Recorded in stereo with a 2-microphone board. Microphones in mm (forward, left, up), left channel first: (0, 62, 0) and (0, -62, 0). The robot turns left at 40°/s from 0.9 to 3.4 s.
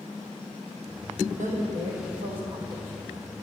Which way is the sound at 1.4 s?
95° right.